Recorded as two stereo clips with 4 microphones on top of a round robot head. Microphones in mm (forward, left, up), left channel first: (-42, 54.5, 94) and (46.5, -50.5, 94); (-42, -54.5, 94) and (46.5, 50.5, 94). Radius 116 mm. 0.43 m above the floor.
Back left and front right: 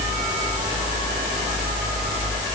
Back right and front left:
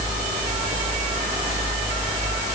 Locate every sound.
Only background noise.